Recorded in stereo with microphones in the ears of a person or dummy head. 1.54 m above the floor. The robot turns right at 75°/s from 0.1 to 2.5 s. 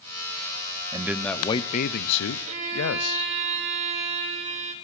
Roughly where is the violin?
Right.